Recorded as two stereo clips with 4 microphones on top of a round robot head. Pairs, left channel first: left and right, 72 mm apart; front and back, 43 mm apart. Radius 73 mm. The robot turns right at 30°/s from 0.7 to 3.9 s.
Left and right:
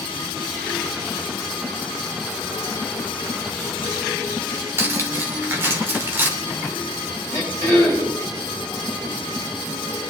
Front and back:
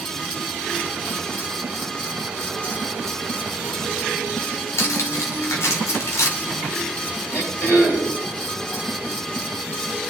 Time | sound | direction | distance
4.8 | cutlery clinking | 25° right | 1.8 m
7.3 | throat clearing | 55° right | 9.5 m